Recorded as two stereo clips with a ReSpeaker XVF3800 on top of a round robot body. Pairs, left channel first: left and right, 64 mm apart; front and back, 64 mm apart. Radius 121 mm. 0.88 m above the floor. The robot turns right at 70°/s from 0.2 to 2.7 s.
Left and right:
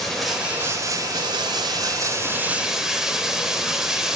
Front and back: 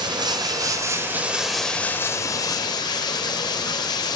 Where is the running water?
175° left, 1.4 m; by 4.2 s 10° right, 1.4 m.